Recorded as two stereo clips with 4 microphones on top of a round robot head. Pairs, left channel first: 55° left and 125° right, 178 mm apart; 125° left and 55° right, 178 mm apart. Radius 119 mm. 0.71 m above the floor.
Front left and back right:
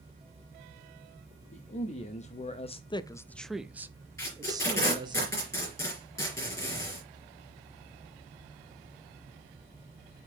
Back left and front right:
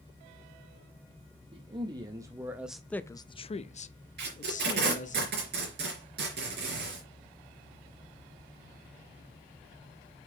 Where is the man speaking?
5° left, 1.2 m; by 5.2 s 170° left, 1.6 m.